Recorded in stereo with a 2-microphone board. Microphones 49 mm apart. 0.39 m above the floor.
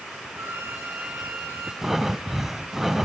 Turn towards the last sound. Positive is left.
turn(degrees=-5)  # may be behind; listen again after turning